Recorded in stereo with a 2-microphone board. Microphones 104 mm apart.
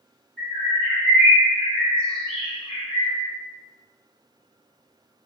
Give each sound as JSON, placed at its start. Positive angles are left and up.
{"t": 0.4, "sound": "a bird", "side_deg": 10, "distance_m": 1.2}